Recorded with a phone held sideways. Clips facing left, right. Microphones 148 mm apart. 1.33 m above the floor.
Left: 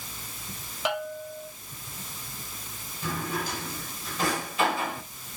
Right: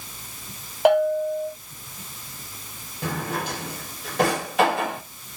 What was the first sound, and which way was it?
A bell, 60° right (ahead or behind).